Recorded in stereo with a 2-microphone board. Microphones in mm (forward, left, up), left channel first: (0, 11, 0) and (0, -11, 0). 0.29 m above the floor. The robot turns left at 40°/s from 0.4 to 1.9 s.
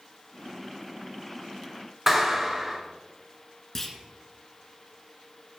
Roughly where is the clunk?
Centre.